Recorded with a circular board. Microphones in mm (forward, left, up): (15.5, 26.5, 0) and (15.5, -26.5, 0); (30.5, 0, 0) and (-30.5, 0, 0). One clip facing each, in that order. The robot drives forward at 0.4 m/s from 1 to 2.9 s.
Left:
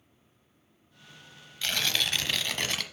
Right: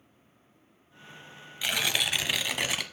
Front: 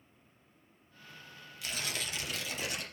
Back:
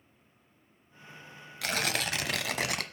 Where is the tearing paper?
165° right, 0.7 m; by 2.8 s 175° right, 1.2 m.